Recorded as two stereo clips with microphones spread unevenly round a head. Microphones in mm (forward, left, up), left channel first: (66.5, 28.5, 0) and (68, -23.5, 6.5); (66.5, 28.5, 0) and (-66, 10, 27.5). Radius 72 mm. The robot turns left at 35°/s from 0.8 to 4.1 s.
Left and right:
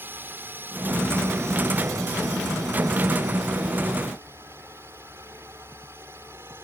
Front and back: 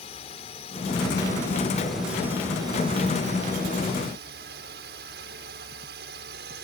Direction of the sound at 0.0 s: 40° right.